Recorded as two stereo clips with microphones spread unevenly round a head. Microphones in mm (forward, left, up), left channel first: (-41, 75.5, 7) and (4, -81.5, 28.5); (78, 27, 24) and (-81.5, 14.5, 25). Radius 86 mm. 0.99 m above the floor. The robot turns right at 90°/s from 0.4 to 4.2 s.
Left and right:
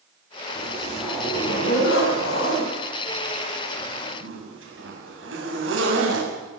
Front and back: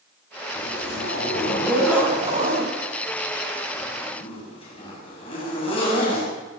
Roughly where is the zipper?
Ahead right.